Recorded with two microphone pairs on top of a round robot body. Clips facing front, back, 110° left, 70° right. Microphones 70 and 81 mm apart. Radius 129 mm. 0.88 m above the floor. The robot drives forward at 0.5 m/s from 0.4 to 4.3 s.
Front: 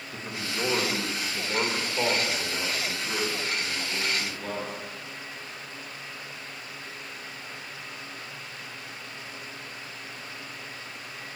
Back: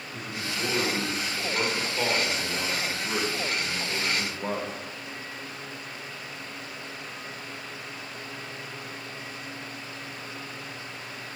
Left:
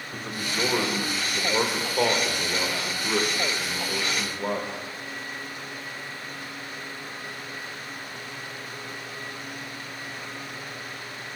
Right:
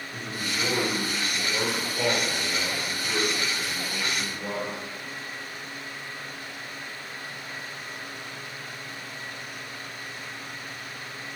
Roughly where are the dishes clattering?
I don't hear dishes clattering.